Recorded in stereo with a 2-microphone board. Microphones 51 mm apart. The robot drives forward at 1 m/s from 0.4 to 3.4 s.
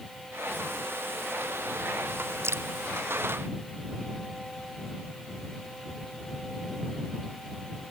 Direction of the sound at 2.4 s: 65° right (ahead or behind).